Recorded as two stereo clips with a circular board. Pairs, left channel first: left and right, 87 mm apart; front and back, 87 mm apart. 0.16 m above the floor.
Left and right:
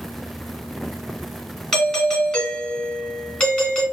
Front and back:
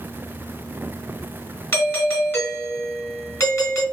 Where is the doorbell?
15° left, 2 m.